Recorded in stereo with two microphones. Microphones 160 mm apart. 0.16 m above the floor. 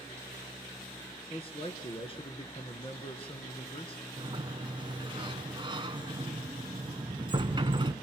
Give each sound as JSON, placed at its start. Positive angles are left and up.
{"t": 1.3, "sound": "a man speaking", "side_deg": 35, "distance_m": 1.8}
{"t": 4.2, "sound": "a sliding door", "side_deg": -30, "distance_m": 0.9}